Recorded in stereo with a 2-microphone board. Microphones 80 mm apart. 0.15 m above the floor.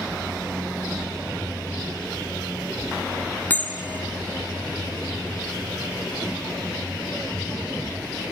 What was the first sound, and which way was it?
A bell, 20° left (ahead or behind).